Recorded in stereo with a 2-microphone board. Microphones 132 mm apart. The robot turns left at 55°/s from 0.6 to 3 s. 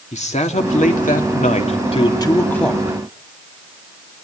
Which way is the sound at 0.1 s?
120° left.